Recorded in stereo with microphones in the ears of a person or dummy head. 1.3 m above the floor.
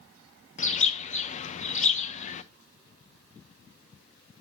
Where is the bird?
40° left (ahead or behind), 0.6 m.